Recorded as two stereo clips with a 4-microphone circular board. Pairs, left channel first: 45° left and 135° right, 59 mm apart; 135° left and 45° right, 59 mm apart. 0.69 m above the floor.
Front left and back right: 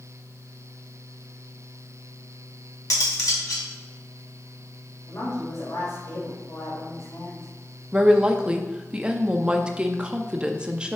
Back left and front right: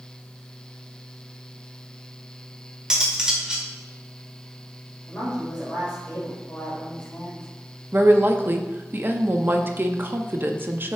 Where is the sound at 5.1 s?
65° left, 3 m.